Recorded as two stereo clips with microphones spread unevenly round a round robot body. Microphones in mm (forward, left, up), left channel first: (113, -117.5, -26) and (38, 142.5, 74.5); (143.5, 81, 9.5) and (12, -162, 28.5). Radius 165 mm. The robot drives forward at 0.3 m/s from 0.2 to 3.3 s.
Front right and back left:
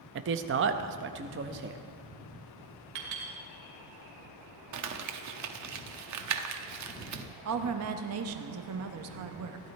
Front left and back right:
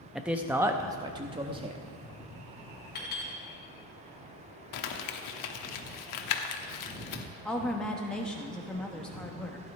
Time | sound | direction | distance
0.1 | a man speaking | 150° left | 0.5 m
3.0 | a clink | 125° left | 2.5 m
4.7 | crumpling | 75° left | 1.0 m
7.5 | a woman speaking | 145° left | 0.9 m